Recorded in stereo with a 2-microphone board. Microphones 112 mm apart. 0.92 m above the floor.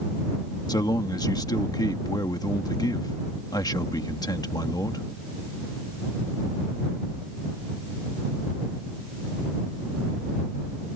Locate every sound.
0.7 s a man speaking: 35° left (ahead or behind)